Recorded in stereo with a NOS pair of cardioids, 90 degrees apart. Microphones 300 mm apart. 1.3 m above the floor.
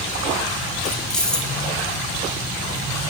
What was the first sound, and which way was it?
Keys jangling, 5° left.